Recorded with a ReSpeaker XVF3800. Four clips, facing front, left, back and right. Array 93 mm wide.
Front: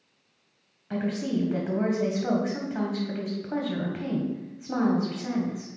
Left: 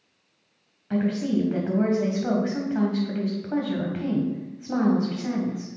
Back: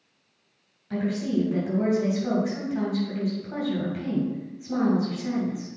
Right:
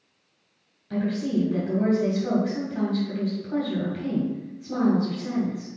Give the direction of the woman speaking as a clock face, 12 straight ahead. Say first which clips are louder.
Left 2 dB, back 2 dB; 10 o'clock.